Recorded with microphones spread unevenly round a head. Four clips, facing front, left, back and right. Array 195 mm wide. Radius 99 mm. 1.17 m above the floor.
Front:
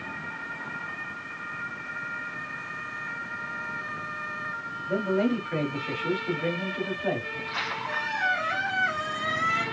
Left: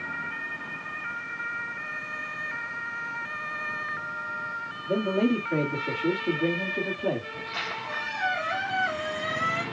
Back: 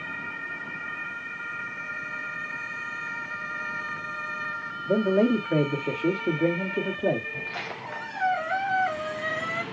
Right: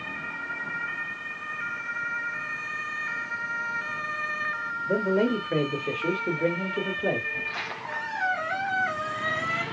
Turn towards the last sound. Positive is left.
turn(degrees=-175)